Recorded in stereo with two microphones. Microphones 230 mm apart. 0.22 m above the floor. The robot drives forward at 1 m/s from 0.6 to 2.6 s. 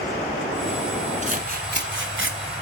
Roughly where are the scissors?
Right.